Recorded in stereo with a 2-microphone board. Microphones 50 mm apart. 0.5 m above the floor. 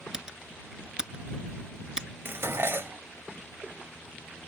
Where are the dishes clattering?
55° right (ahead or behind).